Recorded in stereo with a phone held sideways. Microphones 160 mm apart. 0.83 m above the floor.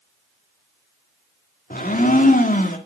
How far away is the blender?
About 1.7 m.